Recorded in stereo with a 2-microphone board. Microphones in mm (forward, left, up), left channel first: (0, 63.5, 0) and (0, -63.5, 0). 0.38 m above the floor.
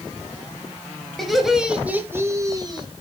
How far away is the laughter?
About 1.8 m.